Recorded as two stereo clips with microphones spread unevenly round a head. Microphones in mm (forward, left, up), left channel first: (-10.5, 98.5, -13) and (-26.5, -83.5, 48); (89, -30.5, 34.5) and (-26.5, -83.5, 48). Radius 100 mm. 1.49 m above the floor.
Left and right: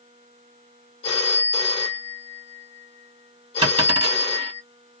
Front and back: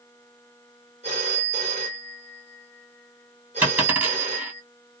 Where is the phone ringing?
150° left, 0.9 m.